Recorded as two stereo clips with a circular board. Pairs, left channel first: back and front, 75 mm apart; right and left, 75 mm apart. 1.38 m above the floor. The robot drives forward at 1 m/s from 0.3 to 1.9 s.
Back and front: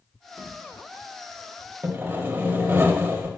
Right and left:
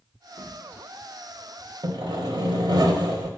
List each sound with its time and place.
0.4 s a drawer: 75° left, 3 m; by 0.5 s 80° left, 3 m
1.8 s sawing: 65° left, 1.1 m